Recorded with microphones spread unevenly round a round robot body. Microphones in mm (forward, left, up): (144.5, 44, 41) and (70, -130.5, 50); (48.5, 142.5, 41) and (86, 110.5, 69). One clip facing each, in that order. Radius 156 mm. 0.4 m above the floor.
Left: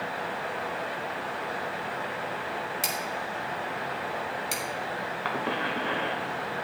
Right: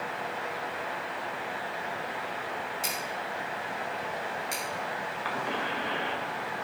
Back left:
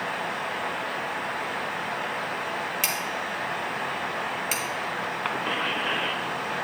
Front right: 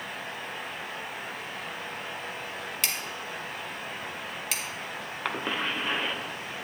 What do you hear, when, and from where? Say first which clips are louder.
2.8 s scissors: left 2 dB, back left 5 dB; 75° left, 3 m
5.2 s a cough: left 3 dB, even; 75° left, 1.7 m